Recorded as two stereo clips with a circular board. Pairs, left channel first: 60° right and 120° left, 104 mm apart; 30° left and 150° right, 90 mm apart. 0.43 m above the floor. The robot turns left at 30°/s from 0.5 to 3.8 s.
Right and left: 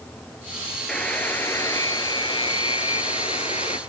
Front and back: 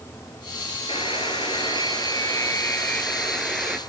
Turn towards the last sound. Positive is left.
turn(degrees=-65)